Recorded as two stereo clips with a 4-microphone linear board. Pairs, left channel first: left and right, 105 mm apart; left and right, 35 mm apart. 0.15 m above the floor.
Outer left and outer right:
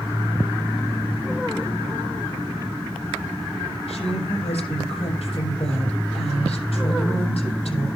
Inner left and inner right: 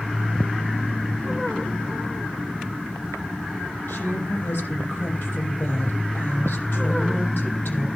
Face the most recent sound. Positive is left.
turn(degrees=70)  # may be behind; listen again after turning